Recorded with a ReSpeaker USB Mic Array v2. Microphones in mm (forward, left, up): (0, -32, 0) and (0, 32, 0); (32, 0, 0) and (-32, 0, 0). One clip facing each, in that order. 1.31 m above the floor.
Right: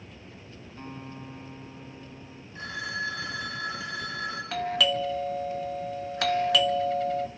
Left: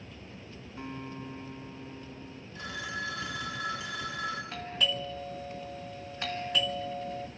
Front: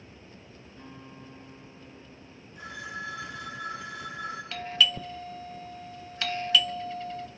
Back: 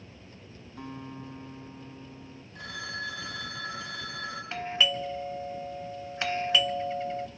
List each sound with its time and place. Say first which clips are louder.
0.8 s a guitar: left 1 dB, back 7 dB; 175° left, 3.5 m
2.5 s a phone ringing: right 4 dB, even; 155° right, 7.5 m
4.5 s a doorbell: right 11 dB, even; 110° right, 1.1 m